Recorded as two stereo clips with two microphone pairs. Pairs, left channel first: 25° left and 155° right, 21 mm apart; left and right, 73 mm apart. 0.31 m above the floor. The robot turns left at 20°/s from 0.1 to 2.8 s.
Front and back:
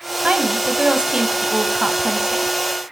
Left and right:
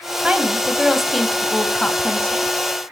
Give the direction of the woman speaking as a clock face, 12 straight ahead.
5 o'clock.